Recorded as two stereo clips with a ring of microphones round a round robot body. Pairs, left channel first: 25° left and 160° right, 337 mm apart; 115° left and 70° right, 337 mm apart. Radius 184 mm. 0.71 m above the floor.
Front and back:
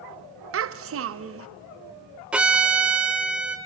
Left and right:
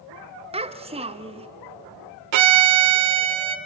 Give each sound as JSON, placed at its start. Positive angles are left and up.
{"t": 0.5, "sound": "a child speaking", "azimuth_deg": -135, "distance_m": 0.6}
{"t": 2.3, "sound": "a violin", "azimuth_deg": -70, "distance_m": 1.0}